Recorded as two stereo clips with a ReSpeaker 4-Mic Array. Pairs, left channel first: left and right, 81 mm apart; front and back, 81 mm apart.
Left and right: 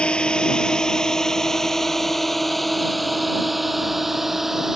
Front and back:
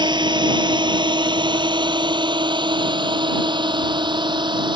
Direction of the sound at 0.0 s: 165° left.